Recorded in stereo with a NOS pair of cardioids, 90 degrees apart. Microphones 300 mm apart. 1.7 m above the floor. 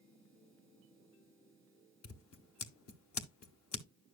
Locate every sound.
2.0 s scissors: 55° left, 1.7 m